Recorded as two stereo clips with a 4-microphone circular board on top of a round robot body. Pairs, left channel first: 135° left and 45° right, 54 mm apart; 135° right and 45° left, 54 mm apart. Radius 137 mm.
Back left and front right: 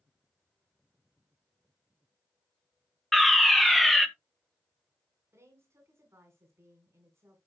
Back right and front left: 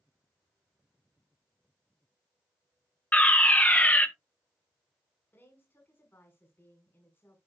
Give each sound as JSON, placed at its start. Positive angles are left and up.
{"t": 3.1, "sound": "a fire alarm", "azimuth_deg": -140, "distance_m": 1.5}
{"t": 5.3, "sound": "a woman speaking", "azimuth_deg": -85, "distance_m": 3.5}